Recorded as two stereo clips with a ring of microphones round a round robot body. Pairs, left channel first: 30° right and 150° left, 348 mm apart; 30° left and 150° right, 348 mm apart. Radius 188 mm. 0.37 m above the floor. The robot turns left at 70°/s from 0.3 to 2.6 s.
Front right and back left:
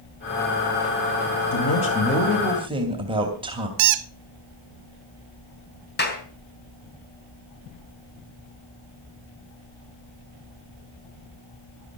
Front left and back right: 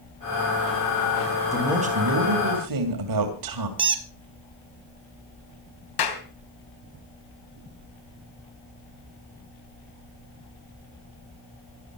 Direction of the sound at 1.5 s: 60° right.